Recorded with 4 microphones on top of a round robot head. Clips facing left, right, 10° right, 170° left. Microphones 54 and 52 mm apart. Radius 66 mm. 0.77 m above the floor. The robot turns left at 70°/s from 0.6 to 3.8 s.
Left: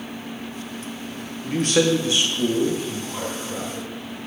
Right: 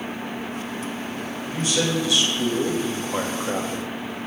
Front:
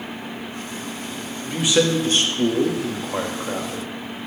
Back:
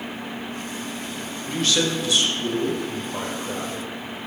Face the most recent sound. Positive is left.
turn(degrees=-85)